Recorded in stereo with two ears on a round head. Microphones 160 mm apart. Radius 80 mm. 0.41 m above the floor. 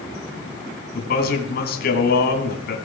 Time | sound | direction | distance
0.9 | a man speaking | 60° left (ahead or behind) | 3 m